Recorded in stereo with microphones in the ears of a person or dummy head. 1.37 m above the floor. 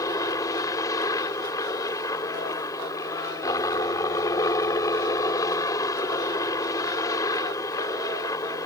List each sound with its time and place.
0.0 s a helicopter: 15° left (ahead or behind)